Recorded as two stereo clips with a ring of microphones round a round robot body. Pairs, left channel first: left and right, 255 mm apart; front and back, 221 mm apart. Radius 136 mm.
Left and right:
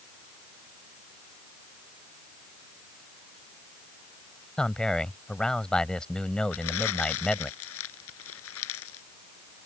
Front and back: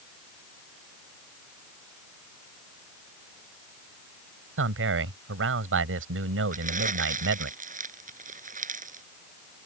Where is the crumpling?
125° left.